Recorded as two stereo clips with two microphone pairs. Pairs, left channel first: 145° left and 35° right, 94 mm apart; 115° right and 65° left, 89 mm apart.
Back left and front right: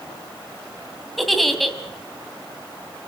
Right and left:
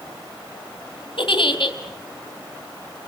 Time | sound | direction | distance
1.2 | a giggle | 125° right | 1.9 m